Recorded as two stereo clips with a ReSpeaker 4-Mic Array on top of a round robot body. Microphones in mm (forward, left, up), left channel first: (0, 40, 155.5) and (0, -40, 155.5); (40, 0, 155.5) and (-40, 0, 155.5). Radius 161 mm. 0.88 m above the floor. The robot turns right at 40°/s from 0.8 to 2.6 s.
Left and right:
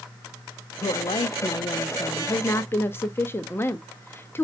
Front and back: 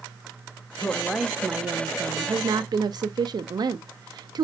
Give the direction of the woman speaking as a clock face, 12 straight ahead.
9 o'clock.